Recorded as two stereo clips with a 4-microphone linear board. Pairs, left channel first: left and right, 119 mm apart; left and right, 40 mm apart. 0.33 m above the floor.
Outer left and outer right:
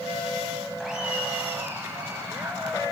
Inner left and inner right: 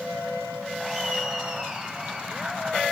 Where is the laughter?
Centre (ahead or behind), 2.0 m; by 2.8 s 30° right (ahead or behind), 4.5 m.